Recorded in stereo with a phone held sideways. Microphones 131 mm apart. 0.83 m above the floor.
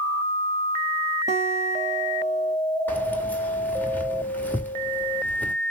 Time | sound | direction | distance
1.3 | a guitar | 60° right (ahead or behind) | 1.7 m
2.9 | keys jangling | 15° left (ahead or behind) | 2.0 m